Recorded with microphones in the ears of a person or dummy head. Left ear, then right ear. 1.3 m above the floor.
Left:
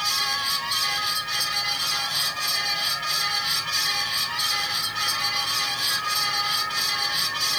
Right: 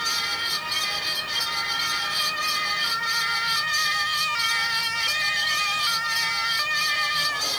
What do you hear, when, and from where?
0.0 s a fan: 10° left (ahead or behind), 3 m